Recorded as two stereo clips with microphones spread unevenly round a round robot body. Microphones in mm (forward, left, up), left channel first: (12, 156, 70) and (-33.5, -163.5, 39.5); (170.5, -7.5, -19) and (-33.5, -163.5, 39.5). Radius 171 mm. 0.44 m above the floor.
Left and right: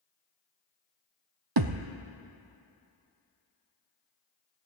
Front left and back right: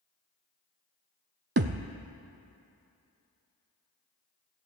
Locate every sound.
1.6 s a thud: 120° right, 0.8 m